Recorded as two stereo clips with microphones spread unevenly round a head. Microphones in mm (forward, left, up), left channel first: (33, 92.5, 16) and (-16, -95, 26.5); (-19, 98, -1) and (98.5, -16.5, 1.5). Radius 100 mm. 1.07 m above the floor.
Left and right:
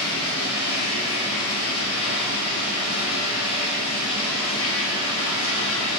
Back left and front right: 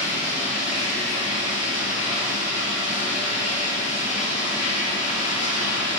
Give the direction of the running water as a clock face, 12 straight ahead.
9 o'clock.